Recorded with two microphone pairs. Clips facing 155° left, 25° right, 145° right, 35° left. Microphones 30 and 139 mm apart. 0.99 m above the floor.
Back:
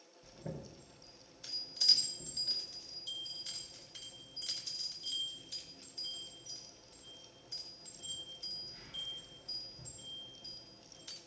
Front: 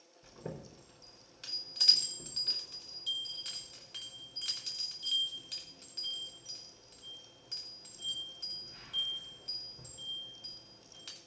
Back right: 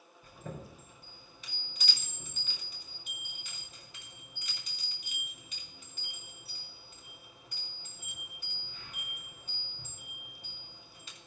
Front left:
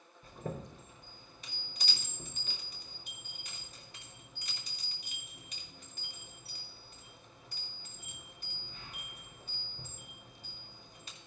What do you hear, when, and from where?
0.2 s a chime: 10° right, 4.5 m